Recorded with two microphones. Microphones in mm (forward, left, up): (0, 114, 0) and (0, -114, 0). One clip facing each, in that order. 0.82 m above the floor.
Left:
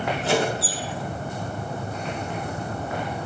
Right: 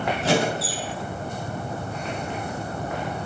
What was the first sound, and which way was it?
A squeak, 75° right (ahead or behind).